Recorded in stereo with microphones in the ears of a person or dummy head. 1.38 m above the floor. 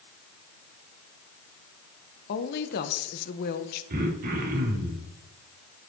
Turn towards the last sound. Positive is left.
turn(degrees=-50)  # may be behind; listen again after turning